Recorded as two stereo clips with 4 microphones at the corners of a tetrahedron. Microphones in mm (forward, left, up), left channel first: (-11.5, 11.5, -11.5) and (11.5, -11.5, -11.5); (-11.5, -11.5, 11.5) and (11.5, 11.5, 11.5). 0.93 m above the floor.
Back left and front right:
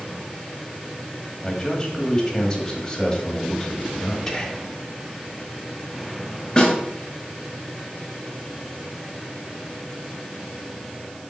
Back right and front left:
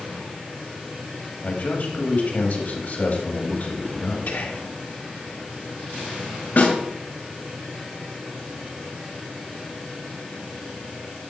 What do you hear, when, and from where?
1.4 s a man speaking: 160° right, 2.0 m
4.3 s whispering: 145° right, 1.6 m
6.6 s a snare drum: 160° right, 2.5 m